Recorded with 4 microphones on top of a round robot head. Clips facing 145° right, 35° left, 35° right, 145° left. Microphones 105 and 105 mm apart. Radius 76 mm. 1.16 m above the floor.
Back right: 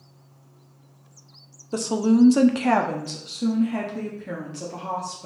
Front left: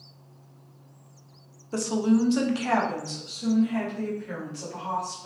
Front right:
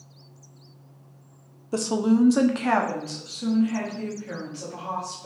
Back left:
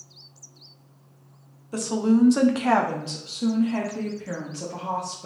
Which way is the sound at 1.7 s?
80° right.